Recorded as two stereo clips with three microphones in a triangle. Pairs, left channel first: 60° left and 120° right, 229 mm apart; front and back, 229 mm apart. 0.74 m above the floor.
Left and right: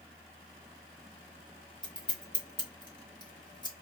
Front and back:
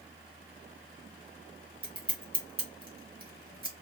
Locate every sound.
1.8 s scissors: 130° left, 1.2 m